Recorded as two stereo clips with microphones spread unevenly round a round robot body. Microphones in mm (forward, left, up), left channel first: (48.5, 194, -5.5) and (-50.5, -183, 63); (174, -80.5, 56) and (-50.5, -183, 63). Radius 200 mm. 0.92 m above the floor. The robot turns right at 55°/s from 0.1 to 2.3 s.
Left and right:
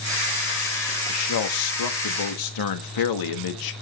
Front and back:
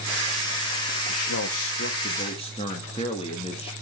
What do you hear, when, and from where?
1.1 s a man speaking: 30° left, 1.6 m; by 3.7 s 95° left, 1.6 m